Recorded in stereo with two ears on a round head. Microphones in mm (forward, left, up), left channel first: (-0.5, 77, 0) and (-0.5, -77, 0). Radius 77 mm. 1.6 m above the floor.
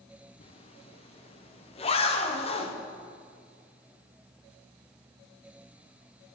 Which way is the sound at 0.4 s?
35° left (ahead or behind).